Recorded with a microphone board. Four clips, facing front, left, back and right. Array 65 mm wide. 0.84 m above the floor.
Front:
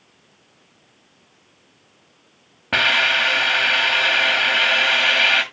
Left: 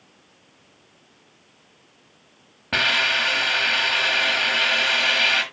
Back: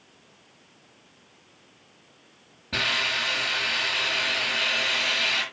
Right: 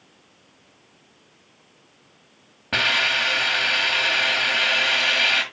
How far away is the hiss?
About 1.6 m.